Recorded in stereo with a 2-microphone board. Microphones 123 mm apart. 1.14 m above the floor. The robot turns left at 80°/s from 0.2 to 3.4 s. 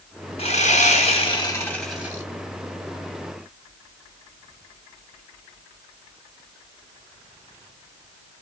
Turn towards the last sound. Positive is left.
turn(degrees=-125)